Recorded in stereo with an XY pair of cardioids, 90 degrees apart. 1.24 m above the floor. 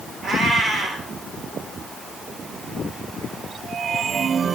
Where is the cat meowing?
65° right, 2.5 m.